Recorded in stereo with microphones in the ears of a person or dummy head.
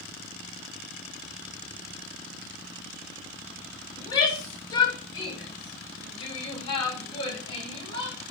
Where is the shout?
20° left (ahead or behind), 7 m; by 8.2 s 30° left (ahead or behind), 9.5 m.